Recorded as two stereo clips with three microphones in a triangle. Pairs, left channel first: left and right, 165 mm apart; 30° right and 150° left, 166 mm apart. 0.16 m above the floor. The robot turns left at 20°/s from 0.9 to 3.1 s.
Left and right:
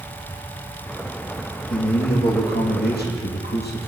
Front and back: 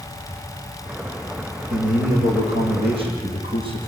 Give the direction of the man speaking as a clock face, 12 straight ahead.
8 o'clock.